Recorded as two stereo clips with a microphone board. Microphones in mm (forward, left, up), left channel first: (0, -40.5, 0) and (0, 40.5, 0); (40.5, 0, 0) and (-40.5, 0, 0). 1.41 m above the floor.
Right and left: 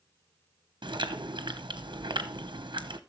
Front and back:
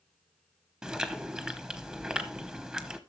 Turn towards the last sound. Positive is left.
turn(degrees=100)